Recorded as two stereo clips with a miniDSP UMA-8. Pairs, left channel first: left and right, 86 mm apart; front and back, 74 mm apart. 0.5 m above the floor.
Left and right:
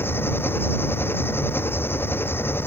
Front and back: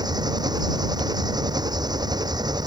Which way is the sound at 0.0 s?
155° left.